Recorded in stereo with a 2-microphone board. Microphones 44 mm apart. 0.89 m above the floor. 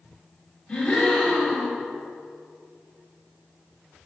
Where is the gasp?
20° left (ahead or behind), 3 m.